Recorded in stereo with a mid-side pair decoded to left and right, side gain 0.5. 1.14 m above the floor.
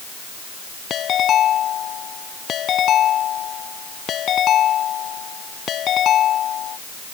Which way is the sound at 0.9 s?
55° left.